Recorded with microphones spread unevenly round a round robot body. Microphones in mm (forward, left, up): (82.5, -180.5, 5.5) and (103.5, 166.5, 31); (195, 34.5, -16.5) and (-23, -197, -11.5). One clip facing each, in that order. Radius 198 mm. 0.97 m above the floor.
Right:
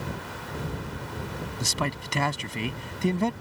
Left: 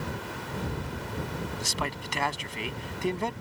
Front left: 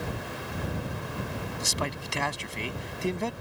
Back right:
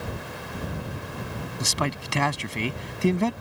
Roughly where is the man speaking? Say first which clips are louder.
Right 3 dB, back right 8 dB; behind right.